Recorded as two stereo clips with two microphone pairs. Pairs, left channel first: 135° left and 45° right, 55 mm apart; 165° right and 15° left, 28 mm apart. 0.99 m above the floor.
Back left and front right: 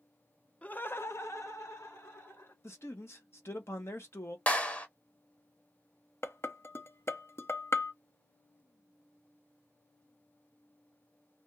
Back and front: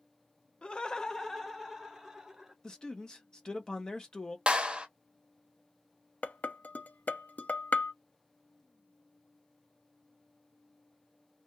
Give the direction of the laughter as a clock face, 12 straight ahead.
6 o'clock.